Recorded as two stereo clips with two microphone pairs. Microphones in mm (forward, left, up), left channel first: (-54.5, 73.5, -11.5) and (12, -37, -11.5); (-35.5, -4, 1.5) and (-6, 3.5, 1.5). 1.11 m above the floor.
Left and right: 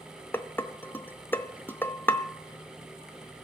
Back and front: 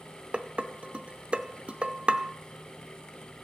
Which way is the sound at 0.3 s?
50° left.